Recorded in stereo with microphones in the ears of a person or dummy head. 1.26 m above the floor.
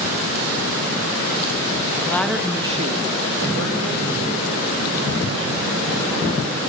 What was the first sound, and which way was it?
A woman speaking, 15° left (ahead or behind).